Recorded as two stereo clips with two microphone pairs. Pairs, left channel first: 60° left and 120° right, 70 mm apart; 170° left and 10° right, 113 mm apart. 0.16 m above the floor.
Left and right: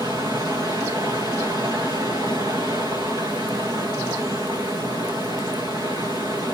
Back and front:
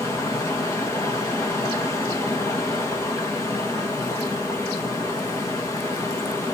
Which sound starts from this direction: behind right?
Running water, at 0.0 s.